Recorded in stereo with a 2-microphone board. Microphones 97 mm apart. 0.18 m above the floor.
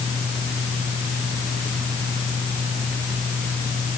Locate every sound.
Only background noise.